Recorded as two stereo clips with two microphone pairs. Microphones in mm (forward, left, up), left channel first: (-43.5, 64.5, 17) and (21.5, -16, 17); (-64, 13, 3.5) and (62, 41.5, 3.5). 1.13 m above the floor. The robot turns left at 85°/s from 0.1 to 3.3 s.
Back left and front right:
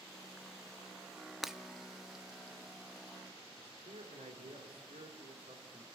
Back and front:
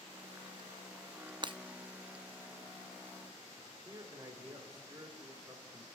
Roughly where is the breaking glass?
Ahead left.